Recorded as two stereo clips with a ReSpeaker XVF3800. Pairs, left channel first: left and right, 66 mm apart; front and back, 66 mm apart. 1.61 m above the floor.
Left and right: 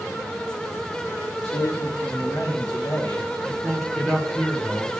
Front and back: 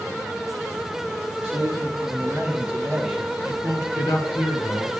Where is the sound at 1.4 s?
135° left, 1.3 m; by 3.3 s 90° left, 1.3 m.